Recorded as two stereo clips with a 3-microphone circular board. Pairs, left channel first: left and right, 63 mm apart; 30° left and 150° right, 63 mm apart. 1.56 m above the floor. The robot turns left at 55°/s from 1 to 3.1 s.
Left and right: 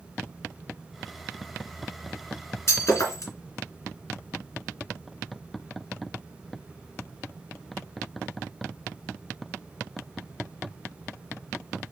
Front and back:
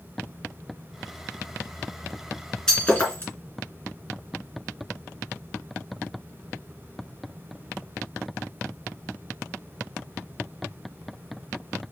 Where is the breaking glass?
110° left, 2.5 m; by 3.3 s 85° left, 2.5 m.